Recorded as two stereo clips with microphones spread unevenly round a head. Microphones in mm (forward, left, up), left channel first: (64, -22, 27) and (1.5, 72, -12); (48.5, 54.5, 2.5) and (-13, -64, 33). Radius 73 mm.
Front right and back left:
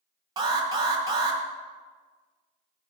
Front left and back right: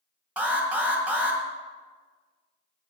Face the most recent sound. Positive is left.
turn(degrees=160)